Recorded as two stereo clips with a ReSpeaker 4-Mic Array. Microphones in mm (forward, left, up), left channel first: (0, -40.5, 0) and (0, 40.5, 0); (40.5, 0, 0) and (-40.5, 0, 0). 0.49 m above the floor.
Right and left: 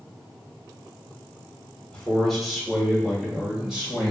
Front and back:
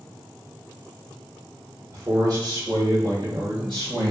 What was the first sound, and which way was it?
A man speaking, 165° right.